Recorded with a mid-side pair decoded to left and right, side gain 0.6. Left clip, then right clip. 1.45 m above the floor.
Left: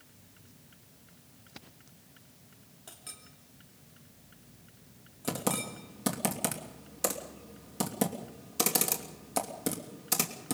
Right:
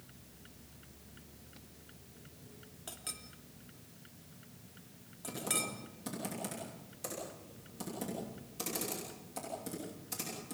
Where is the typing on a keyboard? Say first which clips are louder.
Left 4 dB; 60° left, 3 m.